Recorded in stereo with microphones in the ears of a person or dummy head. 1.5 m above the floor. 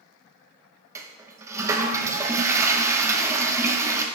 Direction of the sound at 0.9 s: 20° right (ahead or behind).